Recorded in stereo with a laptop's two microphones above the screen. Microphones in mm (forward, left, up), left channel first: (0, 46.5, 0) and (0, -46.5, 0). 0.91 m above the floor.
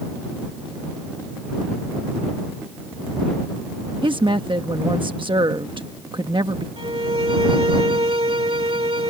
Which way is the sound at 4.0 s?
60° right (ahead or behind).